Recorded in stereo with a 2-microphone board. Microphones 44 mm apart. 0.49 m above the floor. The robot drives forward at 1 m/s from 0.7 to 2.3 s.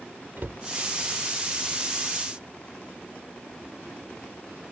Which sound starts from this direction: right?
A cupboard door, at 0.4 s.